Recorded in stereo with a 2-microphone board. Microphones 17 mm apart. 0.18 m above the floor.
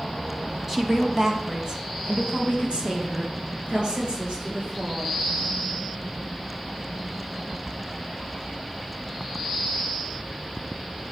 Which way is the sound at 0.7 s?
20° right (ahead or behind).